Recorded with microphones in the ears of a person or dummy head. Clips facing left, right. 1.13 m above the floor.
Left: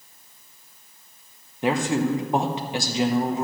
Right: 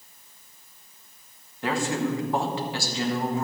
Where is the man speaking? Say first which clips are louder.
Left 4 dB; 15° left (ahead or behind), 0.9 m.